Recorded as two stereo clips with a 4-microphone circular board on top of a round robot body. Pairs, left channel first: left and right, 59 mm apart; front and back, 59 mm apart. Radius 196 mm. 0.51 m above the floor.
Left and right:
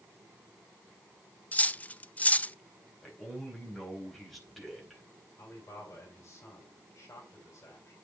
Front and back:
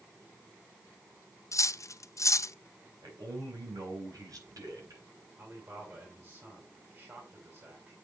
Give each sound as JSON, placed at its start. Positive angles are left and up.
{"t": 1.5, "sound": "cutlery clinking", "azimuth_deg": 25, "distance_m": 0.6}
{"t": 3.0, "sound": "a man speaking", "azimuth_deg": 175, "distance_m": 4.5}
{"t": 5.4, "sound": "a man speaking", "azimuth_deg": 130, "distance_m": 5.0}